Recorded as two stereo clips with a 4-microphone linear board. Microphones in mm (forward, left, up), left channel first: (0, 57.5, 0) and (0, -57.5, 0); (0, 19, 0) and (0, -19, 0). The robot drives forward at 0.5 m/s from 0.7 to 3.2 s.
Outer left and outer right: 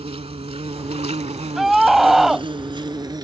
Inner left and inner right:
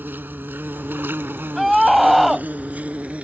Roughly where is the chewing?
I don't hear chewing.